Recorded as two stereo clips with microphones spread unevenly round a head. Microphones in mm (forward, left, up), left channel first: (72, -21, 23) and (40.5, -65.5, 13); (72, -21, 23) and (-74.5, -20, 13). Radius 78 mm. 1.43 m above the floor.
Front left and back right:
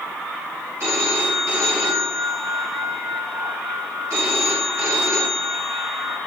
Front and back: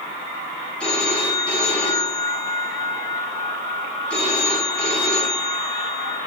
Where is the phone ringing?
85° right, 7.5 m.